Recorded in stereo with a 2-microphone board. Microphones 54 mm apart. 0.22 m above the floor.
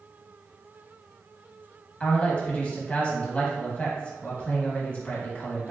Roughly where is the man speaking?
Left.